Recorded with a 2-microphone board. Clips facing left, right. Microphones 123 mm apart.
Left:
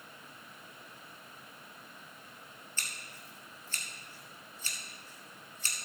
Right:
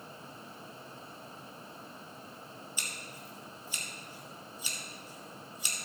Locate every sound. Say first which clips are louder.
2.8 s scissors: right 3 dB; 10° right (ahead or behind), 2 m